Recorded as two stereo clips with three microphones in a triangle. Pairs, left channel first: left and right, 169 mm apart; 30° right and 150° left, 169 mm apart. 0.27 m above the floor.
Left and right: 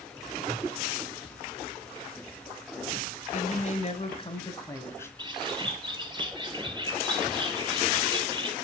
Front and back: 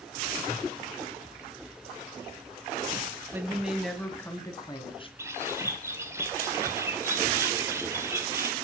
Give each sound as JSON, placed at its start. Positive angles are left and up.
{"t": 3.3, "sound": "a woman speaking", "azimuth_deg": 75, "distance_m": 1.8}
{"t": 5.2, "sound": "a bird", "azimuth_deg": -140, "distance_m": 1.9}